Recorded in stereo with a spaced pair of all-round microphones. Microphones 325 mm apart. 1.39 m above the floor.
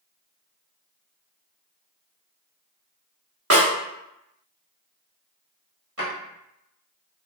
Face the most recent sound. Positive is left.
turn(degrees=-45)  # may be behind; listen again after turning